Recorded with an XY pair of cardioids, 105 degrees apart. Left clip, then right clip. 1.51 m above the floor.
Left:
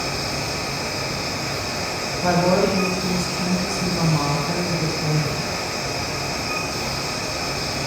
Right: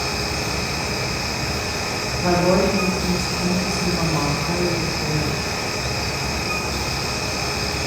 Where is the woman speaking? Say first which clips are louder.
Even; 5° right, 1.0 m.